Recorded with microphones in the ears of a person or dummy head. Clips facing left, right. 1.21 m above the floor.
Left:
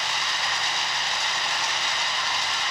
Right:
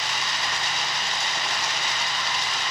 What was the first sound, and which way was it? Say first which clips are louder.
Running water: even; 60° right (ahead or behind).